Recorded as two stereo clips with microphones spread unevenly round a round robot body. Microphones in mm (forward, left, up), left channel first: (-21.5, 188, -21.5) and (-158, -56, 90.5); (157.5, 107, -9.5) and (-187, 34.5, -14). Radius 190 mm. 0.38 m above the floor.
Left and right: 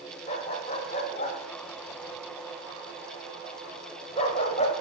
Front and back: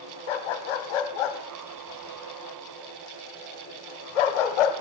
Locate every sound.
0.3 s a dog barking: 5° right, 1.1 m